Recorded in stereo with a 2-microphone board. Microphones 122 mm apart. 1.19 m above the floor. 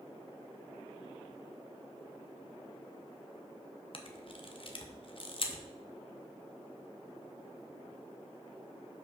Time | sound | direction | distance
3.9 | a camera shutter | 50° left (ahead or behind) | 0.8 m